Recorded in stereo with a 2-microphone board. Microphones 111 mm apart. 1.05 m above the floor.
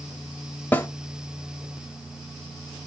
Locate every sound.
0.7 s a snare drum: 15° left (ahead or behind), 0.9 m